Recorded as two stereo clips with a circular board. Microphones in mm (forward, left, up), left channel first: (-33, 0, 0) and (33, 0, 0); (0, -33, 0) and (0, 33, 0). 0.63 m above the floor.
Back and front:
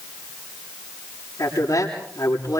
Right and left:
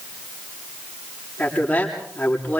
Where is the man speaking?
155° right, 9 m.